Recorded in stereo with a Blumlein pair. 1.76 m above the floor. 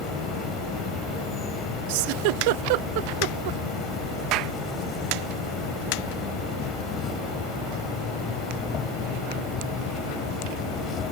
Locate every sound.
0.0 s an insect: 25° left
1.9 s a giggle: 45° right
4.3 s a clap: 40° right